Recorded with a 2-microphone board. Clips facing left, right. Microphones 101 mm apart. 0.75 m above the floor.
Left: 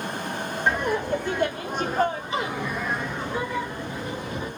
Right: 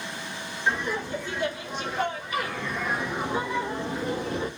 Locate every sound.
0.7 s laughter: 60° left (ahead or behind), 1.1 m; by 4.5 s 35° right (ahead or behind), 1.1 m